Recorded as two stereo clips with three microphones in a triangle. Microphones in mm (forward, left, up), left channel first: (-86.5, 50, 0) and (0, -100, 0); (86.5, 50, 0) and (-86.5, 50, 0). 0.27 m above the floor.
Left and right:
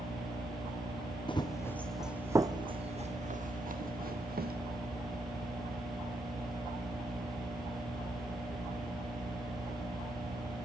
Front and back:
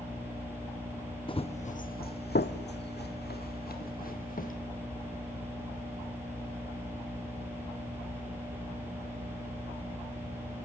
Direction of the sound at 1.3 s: 60° left.